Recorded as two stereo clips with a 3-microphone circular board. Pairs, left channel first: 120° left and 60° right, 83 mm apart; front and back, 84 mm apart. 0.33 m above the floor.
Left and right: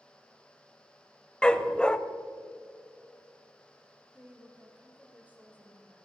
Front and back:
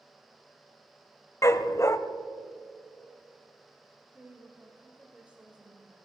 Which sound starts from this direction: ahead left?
A dog barking, at 1.4 s.